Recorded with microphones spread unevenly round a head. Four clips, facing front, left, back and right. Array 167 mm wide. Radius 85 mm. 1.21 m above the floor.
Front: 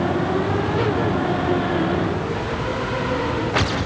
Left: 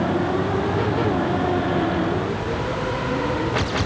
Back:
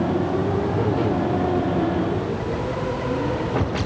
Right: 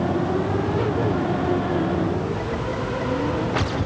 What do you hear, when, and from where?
Only background noise.